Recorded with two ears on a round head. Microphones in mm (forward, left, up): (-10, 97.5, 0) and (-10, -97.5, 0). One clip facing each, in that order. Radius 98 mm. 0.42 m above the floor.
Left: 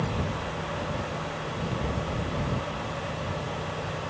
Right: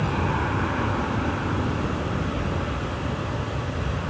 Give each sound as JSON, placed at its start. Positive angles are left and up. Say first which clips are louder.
{"t": 0.0, "sound": "an aircraft", "louder": "right 5 dB", "side_deg": -70}